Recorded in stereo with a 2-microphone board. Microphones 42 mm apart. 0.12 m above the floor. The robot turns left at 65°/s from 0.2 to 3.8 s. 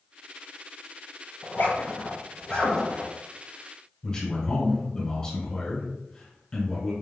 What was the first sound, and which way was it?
A zipper, 55° left (ahead or behind).